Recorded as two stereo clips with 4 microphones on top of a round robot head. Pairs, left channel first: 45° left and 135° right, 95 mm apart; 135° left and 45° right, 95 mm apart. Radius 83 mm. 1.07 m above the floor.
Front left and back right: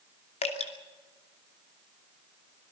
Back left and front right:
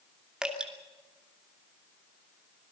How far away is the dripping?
About 2.5 m.